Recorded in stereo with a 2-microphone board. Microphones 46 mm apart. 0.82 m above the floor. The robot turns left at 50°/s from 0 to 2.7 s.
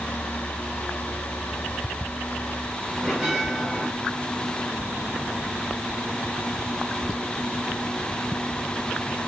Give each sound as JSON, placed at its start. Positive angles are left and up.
{"t": 3.0, "sound": "a bell", "side_deg": -10, "distance_m": 5.5}